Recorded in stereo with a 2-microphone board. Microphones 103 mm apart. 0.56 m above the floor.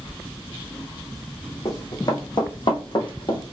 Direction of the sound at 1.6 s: 35° left (ahead or behind).